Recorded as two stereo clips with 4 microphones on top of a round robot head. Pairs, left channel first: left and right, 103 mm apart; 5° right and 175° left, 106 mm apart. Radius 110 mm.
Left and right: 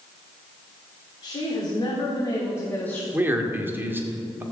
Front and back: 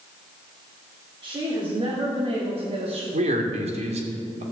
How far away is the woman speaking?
About 3.5 m.